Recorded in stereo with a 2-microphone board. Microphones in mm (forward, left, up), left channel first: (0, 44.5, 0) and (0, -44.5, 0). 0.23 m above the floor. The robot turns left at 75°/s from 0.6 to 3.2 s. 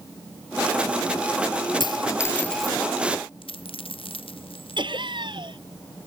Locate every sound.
1.8 s a dropped coin: 65° left (ahead or behind); by 2.8 s 10° right (ahead or behind)
3.4 s a dropped coin: 85° left
4.8 s laughter: 65° right (ahead or behind)